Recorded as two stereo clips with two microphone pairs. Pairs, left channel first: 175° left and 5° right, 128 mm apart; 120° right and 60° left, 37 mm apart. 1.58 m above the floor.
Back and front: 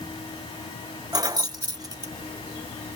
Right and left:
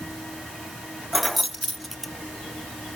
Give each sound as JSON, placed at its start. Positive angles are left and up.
{"t": 1.1, "sound": "keys jangling", "azimuth_deg": -30, "distance_m": 0.7}